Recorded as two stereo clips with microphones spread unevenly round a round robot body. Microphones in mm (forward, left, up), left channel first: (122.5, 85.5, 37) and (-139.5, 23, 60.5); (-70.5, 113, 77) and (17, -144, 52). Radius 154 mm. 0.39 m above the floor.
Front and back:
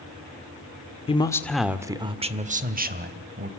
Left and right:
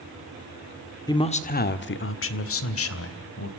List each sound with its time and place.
1.1 s a man speaking: 35° left, 1.3 m; by 3.5 s 140° left, 3 m